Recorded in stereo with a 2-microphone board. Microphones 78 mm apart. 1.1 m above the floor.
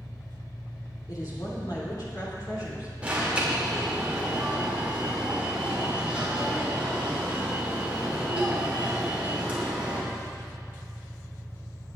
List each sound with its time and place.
0.0 s an engine running: 70° left (ahead or behind), 3 m
1.1 s a woman speaking: 60° left (ahead or behind), 3 m
3.0 s an alarm: 20° right (ahead or behind), 2.5 m